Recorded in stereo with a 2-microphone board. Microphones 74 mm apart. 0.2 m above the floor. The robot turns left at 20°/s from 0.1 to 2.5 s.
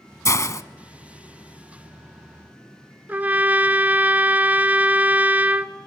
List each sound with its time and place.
0.2 s a hiss: 45° left (ahead or behind), 0.9 m
3.1 s a trumpet: 20° right (ahead or behind), 0.7 m